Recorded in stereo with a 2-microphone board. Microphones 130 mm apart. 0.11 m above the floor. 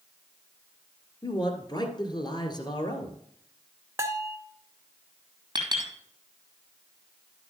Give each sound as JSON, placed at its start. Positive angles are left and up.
{"t": 1.2, "sound": "a man speaking", "side_deg": 35, "distance_m": 1.6}
{"t": 4.0, "sound": "a bell", "side_deg": -20, "distance_m": 0.6}
{"t": 5.5, "sound": "a clink", "side_deg": -35, "distance_m": 3.0}